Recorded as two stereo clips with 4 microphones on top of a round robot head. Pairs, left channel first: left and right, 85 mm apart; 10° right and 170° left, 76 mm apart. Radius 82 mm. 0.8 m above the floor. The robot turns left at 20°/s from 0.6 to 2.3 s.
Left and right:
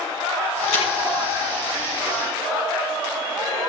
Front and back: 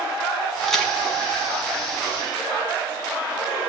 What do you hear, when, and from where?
0.6 s a crack: 75° left, 1.6 m; by 0.9 s 70° left, 1.6 m